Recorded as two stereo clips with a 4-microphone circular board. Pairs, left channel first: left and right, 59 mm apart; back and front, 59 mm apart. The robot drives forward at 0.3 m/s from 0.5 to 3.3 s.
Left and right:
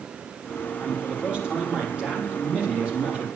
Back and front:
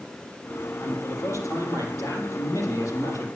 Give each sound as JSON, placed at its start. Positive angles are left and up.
{"t": 0.8, "sound": "a man speaking", "azimuth_deg": -160, "distance_m": 5.0}